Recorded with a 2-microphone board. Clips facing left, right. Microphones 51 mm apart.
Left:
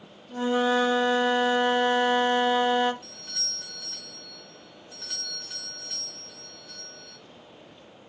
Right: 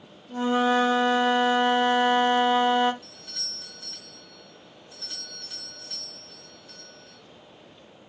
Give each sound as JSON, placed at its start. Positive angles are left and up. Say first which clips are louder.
{"t": 0.3, "sound": "a flute", "louder": "right 1 dB", "side_deg": -10, "distance_m": 0.9}
{"t": 3.0, "sound": "a doorbell", "louder": "left 2 dB", "side_deg": 55, "distance_m": 3.5}